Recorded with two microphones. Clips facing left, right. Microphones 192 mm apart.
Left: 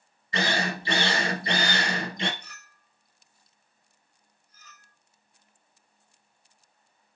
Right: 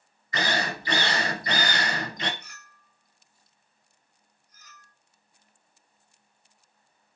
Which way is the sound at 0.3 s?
30° left (ahead or behind).